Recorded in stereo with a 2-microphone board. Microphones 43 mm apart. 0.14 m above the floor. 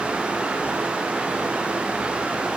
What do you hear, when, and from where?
Only background noise.